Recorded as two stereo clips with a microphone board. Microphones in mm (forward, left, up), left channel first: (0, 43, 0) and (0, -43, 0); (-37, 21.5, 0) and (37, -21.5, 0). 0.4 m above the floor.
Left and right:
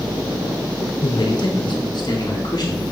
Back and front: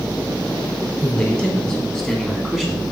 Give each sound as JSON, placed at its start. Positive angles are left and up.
{"t": 1.0, "sound": "a man speaking", "azimuth_deg": 75, "distance_m": 2.5}